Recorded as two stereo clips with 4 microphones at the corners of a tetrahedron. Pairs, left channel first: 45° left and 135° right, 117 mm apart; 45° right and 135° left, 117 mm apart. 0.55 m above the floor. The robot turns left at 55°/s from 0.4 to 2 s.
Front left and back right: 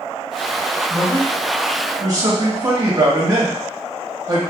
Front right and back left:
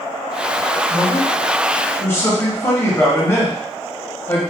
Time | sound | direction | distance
0.9 | a man speaking | 35° right | 1.1 m